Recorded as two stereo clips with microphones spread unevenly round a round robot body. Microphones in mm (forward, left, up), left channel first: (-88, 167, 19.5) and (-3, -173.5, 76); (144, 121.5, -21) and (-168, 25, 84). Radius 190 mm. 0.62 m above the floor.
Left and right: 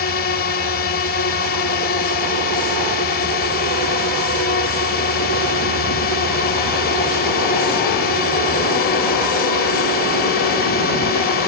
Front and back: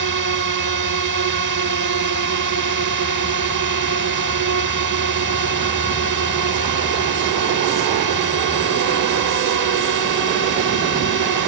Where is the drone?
160° left.